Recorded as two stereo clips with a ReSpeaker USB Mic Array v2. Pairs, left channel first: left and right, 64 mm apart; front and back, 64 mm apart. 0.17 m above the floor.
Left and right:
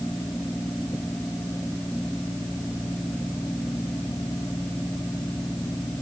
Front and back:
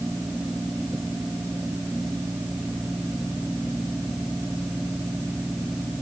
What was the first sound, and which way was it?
Only background noise.